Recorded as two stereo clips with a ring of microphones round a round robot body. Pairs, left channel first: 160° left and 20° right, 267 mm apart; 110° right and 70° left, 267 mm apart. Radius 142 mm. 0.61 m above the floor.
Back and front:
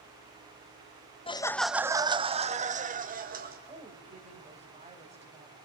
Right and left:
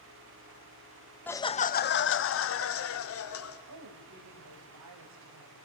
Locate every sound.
1.3 s laughter: 175° left, 0.6 m; by 3.6 s 80° right, 1.8 m
3.7 s a woman speaking: 45° left, 3 m